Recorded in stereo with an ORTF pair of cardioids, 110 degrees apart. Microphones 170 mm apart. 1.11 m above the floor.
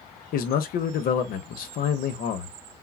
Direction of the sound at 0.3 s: 60° left.